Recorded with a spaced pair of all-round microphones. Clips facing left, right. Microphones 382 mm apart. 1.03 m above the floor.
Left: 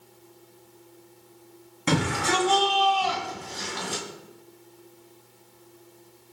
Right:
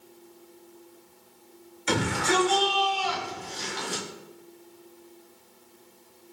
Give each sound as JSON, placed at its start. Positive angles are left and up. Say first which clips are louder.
{"t": 1.9, "sound": "a shout", "louder": "left 1 dB", "side_deg": 85, "distance_m": 6.0}